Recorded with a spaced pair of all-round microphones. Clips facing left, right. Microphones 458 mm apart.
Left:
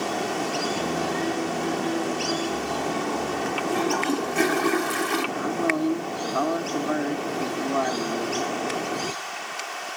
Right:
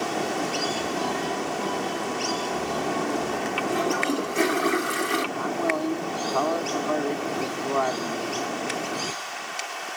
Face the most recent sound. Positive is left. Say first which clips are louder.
# left 2 dB
turn(degrees=35)  # may be behind; listen again after turning